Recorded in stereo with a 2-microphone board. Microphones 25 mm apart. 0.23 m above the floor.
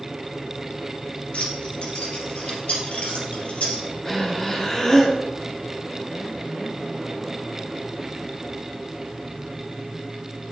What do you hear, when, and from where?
1.3 s keys jangling: 55° left (ahead or behind), 2 m; by 3.8 s 60° left (ahead or behind), 3.5 m
4.0 s breathing: 20° left (ahead or behind), 1.6 m